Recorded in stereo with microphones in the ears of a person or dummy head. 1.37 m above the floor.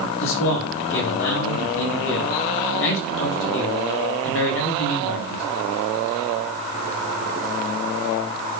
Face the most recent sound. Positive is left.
turn(degrees=70)  # may be behind; listen again after turning